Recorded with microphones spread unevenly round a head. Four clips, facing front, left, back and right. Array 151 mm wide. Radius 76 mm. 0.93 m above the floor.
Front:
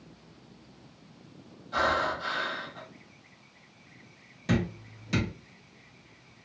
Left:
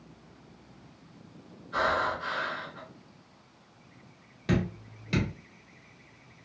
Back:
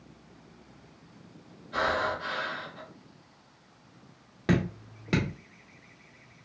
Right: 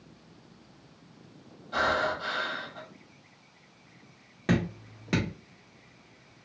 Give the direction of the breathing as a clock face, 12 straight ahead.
3 o'clock.